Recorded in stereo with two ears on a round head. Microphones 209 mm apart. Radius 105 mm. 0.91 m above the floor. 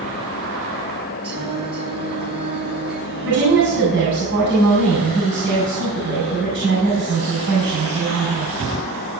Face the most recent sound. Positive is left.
turn(degrees=-55)  # may be behind; listen again after turning